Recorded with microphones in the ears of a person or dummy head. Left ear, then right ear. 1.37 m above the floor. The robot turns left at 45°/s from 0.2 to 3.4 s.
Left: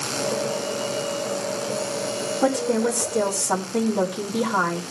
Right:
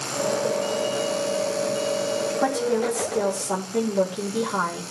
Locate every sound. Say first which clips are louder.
2.4 s a woman speaking: left 3 dB; 140° right, 4 m; by 4.8 s 175° left, 4 m